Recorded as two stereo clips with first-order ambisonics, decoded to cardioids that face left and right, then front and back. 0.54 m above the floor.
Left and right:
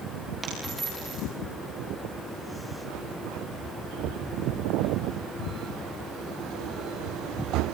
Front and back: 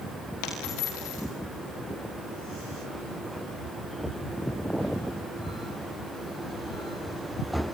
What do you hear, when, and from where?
0.4 s a dropped coin: 5° right, 7 m